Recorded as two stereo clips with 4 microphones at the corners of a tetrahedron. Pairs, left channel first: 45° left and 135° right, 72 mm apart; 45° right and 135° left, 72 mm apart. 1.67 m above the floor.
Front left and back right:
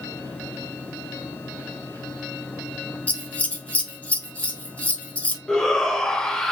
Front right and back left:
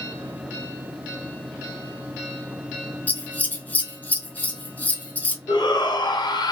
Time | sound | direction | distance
3.1 | scissors | straight ahead | 0.5 m
5.5 | a shout | 35° right | 0.7 m